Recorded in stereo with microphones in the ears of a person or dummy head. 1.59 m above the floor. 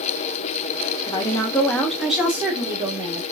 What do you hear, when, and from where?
1.1 s a woman speaking: 25° left (ahead or behind), 1.8 m; by 3.2 s 25° right (ahead or behind), 2 m